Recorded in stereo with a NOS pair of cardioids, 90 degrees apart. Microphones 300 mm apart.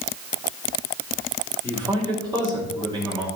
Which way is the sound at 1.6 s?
15° right.